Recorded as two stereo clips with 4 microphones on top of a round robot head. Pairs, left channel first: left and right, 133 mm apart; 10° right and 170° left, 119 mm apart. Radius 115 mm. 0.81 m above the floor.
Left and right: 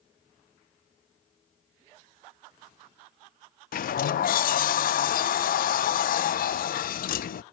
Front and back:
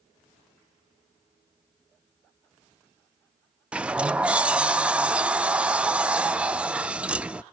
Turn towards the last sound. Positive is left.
turn(degrees=90)